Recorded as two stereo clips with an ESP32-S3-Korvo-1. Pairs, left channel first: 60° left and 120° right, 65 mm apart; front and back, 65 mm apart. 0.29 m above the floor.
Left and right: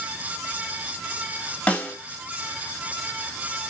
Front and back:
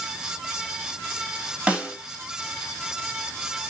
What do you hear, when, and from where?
1.7 s a snare drum: 120° left, 1.0 m